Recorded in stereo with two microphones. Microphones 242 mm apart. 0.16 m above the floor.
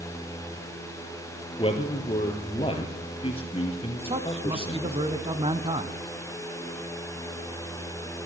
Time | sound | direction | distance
1.6 | a man speaking | 20° left (ahead or behind) | 3 m
4.1 | a man speaking | 25° right (ahead or behind) | 1.1 m